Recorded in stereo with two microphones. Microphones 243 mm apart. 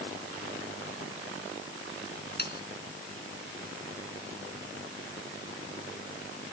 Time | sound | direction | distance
2.4 | sawing | 40° left (ahead or behind) | ?